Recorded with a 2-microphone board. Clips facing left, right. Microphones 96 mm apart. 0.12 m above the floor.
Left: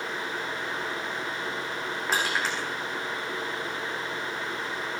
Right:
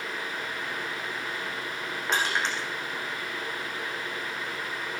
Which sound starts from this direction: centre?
Crushing, at 2.1 s.